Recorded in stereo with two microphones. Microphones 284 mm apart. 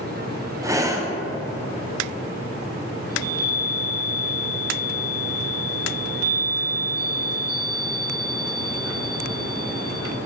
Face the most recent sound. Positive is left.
turn(degrees=-60)  # may be behind; listen again after turning